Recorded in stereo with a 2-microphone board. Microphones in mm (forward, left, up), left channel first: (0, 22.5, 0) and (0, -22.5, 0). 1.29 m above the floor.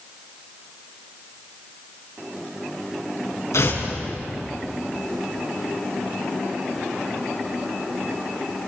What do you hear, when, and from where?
3.5 s tearing paper: 80° left, 5.5 m